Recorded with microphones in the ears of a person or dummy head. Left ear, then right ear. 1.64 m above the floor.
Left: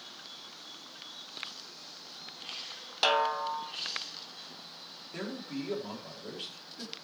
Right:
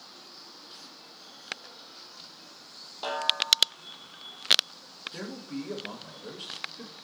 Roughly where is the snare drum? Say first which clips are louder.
Right 1 dB; left.